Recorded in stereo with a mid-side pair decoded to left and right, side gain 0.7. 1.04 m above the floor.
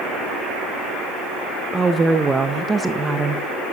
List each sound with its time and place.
1.7 s a woman speaking: 20° right, 0.6 m